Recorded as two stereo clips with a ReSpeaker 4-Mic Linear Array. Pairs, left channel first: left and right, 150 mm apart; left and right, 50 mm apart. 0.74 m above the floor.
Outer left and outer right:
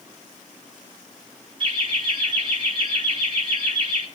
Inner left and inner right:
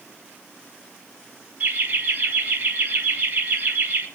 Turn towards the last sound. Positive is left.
turn(degrees=-40)  # may be behind; listen again after turning